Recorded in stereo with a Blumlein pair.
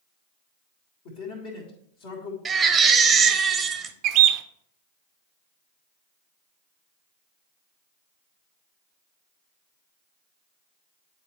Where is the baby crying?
15° right, 0.8 m.